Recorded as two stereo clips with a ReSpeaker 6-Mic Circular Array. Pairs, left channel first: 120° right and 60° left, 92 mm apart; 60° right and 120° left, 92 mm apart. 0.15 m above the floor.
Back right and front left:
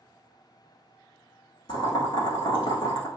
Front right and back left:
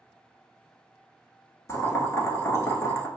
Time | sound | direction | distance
1.7 | boiling | 110° right | 0.8 m